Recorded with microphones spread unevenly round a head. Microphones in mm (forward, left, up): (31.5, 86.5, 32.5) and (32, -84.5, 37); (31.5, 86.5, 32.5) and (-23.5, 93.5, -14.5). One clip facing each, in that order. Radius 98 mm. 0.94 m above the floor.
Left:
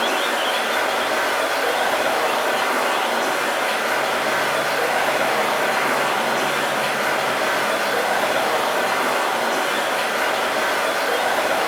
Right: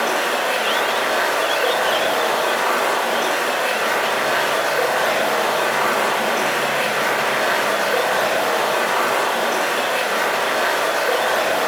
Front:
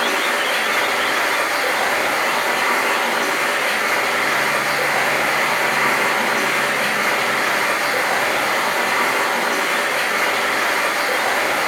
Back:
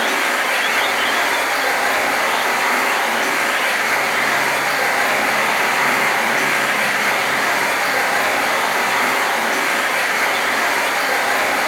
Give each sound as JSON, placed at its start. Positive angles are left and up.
{"t": 0.0, "sound": "running water", "azimuth_deg": -40, "distance_m": 1.6}